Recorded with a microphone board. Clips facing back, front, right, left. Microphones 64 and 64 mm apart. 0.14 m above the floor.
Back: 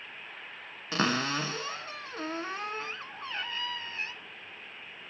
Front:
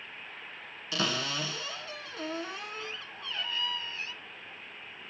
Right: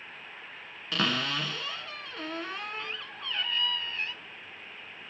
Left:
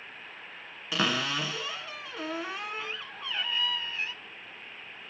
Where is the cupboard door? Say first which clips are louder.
Back 4 dB, left 1 dB; 170° left, 0.6 m.